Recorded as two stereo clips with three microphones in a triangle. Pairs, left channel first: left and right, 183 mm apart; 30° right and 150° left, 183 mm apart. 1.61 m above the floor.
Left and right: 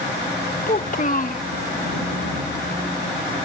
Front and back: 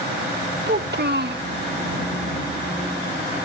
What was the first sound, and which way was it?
A child speaking, 130° left.